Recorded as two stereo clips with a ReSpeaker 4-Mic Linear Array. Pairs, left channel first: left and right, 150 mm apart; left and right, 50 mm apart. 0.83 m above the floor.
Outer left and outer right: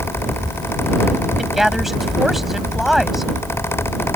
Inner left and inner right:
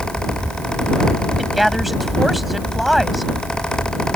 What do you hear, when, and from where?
1.4 s a woman speaking: centre (ahead or behind)